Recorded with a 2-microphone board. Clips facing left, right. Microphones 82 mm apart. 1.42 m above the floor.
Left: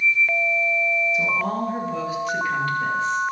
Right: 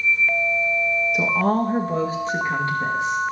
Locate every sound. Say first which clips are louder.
1.1 s a woman speaking: right 4 dB; 60° right (ahead or behind), 1.9 m; by 3.2 s 15° right (ahead or behind), 2.5 m